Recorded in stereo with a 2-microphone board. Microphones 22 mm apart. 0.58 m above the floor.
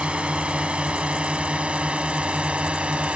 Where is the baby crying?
No baby crying in this recording.